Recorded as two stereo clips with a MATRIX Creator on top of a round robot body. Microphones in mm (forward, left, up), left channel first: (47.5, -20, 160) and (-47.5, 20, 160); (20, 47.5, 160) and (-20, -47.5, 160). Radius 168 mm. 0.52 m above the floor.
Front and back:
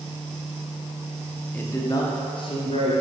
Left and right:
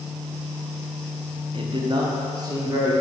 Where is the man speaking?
95° right, 1.1 m; by 2.9 s 50° right, 1.9 m.